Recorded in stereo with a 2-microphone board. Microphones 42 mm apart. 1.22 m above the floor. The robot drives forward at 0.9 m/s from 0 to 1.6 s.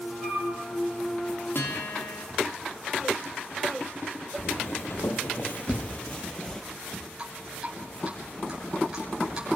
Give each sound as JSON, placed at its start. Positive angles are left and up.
{"t": 0.2, "sound": "a flute", "side_deg": 15, "distance_m": 6.5}
{"t": 1.6, "sound": "a guitar", "side_deg": 65, "distance_m": 2.5}
{"t": 4.4, "sound": "footsteps", "side_deg": 65, "distance_m": 3.0}
{"t": 7.2, "sound": "dripping", "side_deg": -20, "distance_m": 6.5}